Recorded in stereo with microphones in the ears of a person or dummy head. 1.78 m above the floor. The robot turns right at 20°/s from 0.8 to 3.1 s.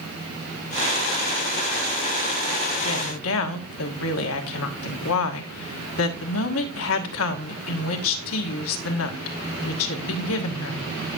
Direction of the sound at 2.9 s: 70° left (ahead or behind).